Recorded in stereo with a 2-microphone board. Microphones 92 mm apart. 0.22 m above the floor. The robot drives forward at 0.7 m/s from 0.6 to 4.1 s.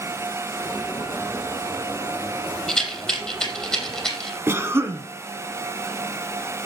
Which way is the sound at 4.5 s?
25° right (ahead or behind).